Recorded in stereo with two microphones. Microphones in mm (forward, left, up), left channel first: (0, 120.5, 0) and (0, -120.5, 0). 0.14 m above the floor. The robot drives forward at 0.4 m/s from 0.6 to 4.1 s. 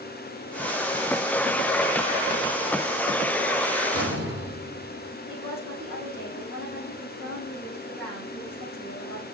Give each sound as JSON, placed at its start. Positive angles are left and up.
{"t": 3.9, "sound": "a door slam", "side_deg": -75, "distance_m": 5.0}
{"t": 5.3, "sound": "a woman speaking", "side_deg": -65, "distance_m": 5.5}